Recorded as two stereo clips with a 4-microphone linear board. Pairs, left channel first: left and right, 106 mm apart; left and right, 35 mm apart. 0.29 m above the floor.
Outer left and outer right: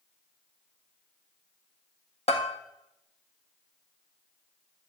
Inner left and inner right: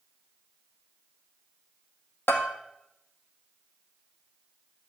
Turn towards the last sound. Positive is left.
turn(degrees=85)